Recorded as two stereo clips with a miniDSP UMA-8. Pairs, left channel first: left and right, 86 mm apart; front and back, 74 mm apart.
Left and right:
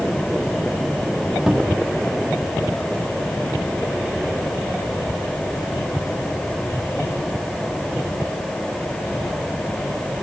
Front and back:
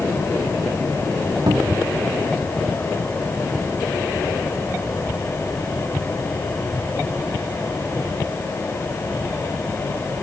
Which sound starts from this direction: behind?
A cupboard door, at 1.5 s.